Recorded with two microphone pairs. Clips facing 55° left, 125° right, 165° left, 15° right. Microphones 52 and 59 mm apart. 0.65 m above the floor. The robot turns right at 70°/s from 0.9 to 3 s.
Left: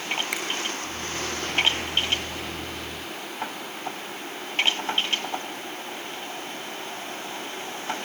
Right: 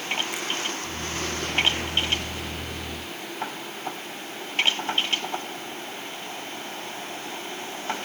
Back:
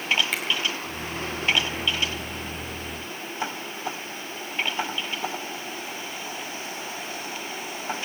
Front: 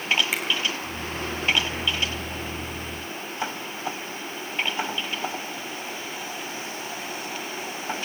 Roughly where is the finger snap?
Left.